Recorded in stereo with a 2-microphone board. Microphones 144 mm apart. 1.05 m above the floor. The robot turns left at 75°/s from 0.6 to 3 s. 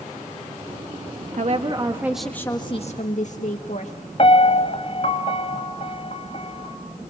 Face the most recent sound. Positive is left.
turn(degrees=45)  # may be behind; listen again after turning